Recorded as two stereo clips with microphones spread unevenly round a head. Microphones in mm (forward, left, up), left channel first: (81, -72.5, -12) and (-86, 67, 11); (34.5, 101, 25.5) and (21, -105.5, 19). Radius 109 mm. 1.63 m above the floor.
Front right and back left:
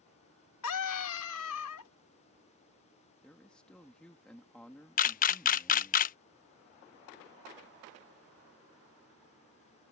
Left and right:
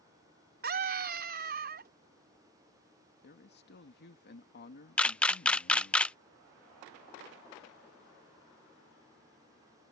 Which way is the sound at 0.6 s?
50° right.